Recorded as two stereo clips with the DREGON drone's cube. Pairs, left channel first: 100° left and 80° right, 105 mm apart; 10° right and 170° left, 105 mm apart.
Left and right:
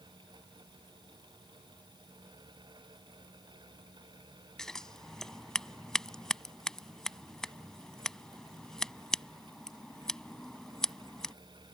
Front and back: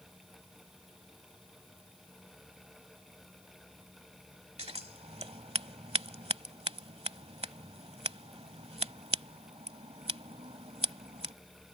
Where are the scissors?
175° right.